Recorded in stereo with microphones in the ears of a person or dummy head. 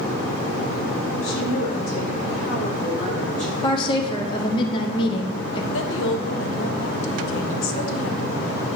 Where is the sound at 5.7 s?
75° left (ahead or behind), 1.0 m.